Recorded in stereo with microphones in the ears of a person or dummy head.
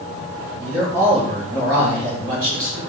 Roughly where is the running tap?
I don't hear a running tap.